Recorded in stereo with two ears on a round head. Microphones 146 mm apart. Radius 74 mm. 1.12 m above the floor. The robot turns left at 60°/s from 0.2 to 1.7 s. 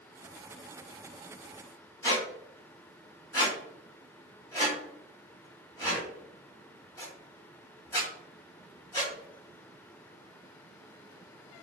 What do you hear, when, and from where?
2.0 s a squeak: 20° left (ahead or behind), 1.6 m